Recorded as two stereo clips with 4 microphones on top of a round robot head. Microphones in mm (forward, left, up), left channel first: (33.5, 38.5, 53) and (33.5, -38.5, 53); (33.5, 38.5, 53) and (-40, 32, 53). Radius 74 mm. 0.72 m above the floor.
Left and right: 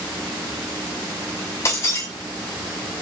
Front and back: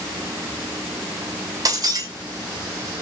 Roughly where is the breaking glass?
Behind left.